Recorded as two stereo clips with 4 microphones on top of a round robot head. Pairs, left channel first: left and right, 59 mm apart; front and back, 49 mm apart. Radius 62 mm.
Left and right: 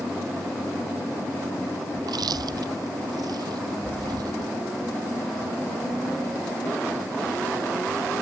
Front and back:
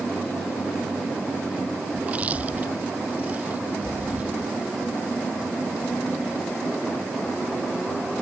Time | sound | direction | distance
2.0 | chewing | 110° right | ?